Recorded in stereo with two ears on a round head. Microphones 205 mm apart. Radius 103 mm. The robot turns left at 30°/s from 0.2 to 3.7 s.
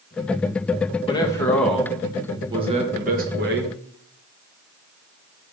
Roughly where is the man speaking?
Ahead.